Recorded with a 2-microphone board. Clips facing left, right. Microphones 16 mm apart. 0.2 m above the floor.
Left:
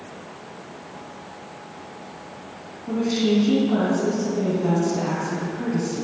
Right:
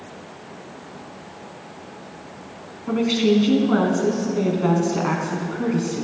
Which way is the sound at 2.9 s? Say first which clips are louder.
Right 3 dB; 40° right (ahead or behind).